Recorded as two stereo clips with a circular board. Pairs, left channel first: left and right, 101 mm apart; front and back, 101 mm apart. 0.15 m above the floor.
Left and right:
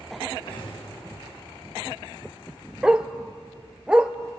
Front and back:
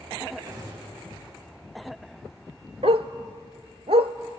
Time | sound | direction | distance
0.5 | a gunshot | 125° left | 9 m
2.8 | a dog barking | 170° right | 0.7 m